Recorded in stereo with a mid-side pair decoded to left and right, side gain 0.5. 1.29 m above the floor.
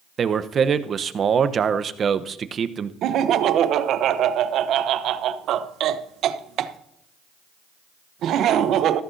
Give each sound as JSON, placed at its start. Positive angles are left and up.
{"t": 0.2, "sound": "a man speaking", "azimuth_deg": -40, "distance_m": 0.9}
{"t": 3.0, "sound": "laughter", "azimuth_deg": -65, "distance_m": 0.9}